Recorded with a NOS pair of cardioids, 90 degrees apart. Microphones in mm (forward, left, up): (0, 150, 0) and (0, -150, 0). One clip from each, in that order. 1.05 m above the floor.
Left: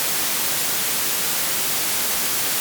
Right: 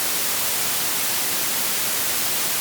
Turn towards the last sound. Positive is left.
No sound to turn to.